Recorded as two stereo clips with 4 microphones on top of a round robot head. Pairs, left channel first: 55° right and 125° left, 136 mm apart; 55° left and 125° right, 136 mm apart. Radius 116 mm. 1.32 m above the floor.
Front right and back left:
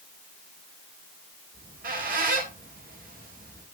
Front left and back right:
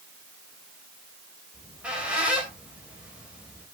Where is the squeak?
150° left, 3 m.